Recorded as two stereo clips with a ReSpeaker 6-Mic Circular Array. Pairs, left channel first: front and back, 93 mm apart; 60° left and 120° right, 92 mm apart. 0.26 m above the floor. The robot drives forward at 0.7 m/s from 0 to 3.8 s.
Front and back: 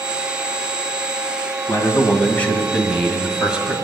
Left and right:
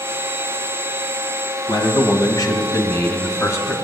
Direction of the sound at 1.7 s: 50° left.